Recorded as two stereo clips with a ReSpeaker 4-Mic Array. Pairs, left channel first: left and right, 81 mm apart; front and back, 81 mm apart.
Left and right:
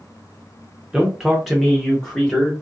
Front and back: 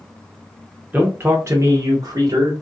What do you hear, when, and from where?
0.9 s a man speaking: 155° right, 0.7 m; by 2.5 s 165° left, 1.2 m